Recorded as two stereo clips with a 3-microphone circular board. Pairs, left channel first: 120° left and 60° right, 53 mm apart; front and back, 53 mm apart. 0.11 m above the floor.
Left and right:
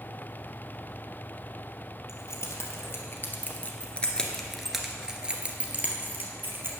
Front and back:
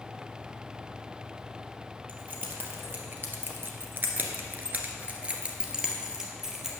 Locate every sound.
2.1 s keys jangling: 135° left, 2 m; by 6.7 s 95° right, 2 m